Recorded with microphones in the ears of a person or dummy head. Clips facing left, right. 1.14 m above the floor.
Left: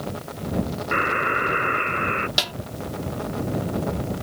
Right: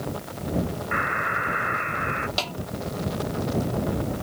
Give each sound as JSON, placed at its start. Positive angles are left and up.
{"t": 0.9, "sound": "a buzzer", "side_deg": 55}
{"t": 2.4, "sound": "a snare drum", "side_deg": 25}